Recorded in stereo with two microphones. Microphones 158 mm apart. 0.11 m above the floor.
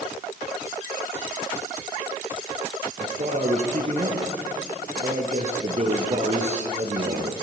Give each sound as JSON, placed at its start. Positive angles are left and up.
{"t": 3.0, "sound": "a man speaking", "side_deg": -50, "distance_m": 2.5}